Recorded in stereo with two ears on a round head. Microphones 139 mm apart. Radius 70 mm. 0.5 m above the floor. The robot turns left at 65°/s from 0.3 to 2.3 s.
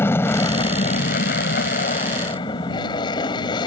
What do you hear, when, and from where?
0.0 s an aircraft: 160° left; by 3.7 s 30° left